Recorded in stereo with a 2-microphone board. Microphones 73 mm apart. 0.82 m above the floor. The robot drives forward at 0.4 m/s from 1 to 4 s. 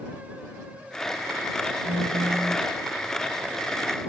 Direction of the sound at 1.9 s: 45° right (ahead or behind).